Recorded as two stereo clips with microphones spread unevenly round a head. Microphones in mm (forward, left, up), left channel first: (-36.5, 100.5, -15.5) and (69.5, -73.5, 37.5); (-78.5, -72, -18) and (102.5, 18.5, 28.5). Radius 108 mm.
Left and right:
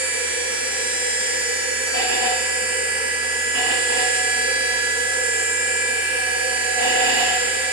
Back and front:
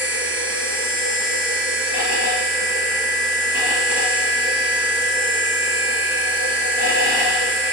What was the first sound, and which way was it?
A machine running, 90° right.